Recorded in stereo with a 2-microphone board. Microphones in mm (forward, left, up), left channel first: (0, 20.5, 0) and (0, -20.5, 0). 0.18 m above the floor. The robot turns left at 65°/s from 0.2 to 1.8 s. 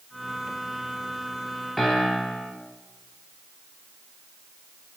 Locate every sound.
1.8 s a piano: 10° left (ahead or behind), 1.1 m; by 2.5 s 5° left (ahead or behind), 1.1 m